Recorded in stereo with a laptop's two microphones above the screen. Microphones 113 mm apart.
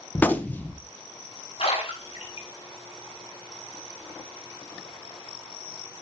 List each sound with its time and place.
0.1 s a gunshot: 15° left (ahead or behind), 1.0 m
1.6 s a splash: 60° left (ahead or behind), 7.5 m